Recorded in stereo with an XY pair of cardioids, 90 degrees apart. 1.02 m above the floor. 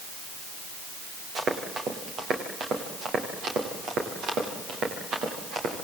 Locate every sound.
1.4 s running footsteps: 65° right, 7 m; by 5.9 s 75° right, 10 m